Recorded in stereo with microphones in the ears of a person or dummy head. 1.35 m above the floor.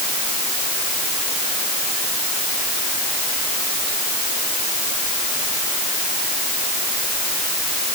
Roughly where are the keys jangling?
No keys jangling in this recording.